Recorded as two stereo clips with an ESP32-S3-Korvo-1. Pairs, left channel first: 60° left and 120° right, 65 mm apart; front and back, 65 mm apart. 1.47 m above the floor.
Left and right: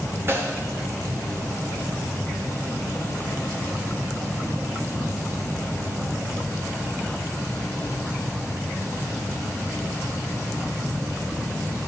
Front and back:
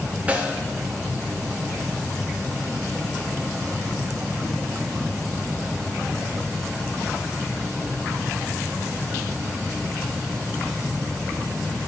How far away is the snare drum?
About 1.0 m.